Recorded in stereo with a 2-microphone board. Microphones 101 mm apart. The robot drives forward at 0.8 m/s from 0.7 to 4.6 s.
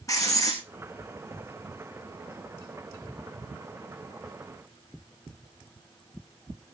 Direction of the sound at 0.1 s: 35° left (ahead or behind).